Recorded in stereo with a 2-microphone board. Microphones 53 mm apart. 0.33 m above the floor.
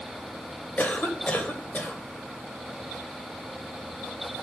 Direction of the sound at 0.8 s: 30° left (ahead or behind).